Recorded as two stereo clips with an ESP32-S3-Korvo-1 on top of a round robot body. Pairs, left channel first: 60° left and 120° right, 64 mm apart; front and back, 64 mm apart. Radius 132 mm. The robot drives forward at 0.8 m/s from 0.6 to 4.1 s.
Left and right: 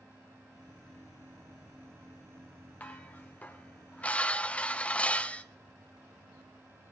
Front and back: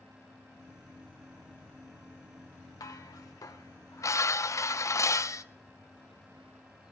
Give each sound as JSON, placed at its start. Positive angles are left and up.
{"t": 2.8, "sound": "dishes clattering", "azimuth_deg": 0, "distance_m": 1.6}